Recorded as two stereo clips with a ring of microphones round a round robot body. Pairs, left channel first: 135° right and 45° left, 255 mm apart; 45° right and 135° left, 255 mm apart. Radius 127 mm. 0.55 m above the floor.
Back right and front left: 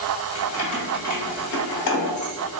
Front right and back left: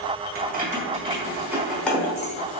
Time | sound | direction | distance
0.3 | keys jangling | 175° right | 1.1 m